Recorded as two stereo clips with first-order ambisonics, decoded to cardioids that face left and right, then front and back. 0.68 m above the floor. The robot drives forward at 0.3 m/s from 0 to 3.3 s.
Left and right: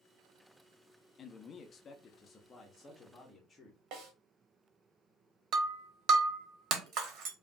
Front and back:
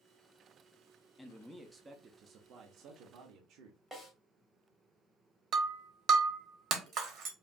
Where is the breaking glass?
130° right, 1.0 m.